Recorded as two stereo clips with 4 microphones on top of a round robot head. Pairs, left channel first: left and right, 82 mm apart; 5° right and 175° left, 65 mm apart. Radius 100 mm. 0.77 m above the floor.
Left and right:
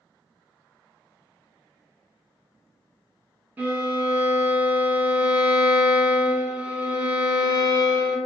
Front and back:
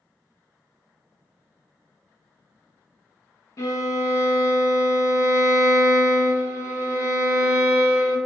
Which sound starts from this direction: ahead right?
A violin, at 3.6 s.